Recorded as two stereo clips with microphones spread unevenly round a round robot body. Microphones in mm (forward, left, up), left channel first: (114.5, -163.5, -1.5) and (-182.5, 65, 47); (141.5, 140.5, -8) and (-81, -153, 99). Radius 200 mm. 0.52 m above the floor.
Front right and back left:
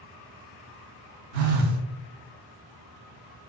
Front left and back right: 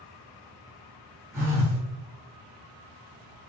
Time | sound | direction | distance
1.3 | a phone buzzing | 145° left | 0.7 m